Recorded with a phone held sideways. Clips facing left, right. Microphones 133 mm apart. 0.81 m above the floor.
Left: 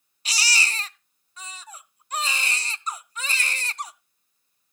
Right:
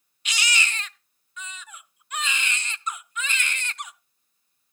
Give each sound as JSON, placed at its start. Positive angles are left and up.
{"t": 0.2, "sound": "a baby crying", "side_deg": 35, "distance_m": 0.5}